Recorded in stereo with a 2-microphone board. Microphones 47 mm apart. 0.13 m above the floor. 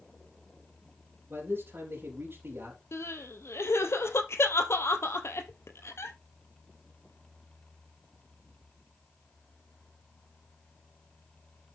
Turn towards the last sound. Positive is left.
turn(degrees=70)  # may be behind; listen again after turning